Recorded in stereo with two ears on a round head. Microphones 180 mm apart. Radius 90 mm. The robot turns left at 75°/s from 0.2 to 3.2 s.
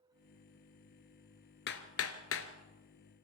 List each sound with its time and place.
1.7 s hammering: 60° left (ahead or behind), 1.7 m